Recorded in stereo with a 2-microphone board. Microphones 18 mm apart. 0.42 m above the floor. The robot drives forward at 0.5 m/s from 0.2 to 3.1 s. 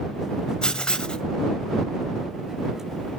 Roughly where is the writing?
Left.